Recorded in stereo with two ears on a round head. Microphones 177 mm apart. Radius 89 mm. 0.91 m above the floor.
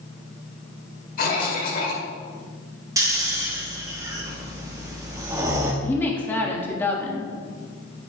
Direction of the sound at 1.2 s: 50° left (ahead or behind).